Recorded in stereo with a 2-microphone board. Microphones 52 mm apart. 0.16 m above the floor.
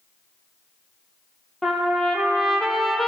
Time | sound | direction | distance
1.6 | a trumpet | 5° left (ahead or behind) | 1.1 m